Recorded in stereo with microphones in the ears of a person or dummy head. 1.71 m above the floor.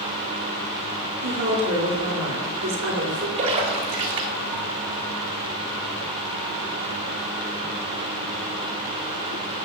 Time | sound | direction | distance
1.2 | a woman speaking | 80° right | 3 m
3.4 | a splash | 40° right (ahead or behind) | 1.3 m